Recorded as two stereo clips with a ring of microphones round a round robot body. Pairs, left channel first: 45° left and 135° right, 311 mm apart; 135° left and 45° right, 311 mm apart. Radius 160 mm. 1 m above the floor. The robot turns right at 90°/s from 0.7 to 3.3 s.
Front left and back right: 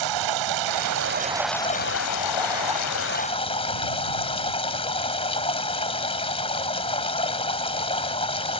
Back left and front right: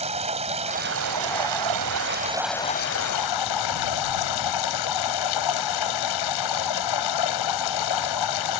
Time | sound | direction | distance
0.0 | running water | 115° right | ?